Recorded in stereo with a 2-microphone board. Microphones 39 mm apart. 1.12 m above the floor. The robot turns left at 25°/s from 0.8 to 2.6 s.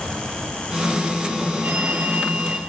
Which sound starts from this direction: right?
A phone ringing, at 1.6 s.